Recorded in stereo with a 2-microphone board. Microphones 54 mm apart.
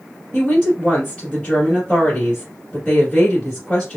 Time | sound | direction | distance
0.3 | a woman speaking | 15° left (ahead or behind) | 1.7 m